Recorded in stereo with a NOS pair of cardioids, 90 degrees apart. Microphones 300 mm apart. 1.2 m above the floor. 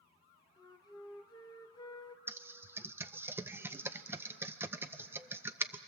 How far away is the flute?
About 1.4 m.